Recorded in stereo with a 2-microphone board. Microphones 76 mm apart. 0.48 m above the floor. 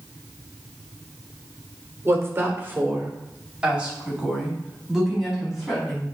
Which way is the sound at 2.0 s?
35° right (ahead or behind).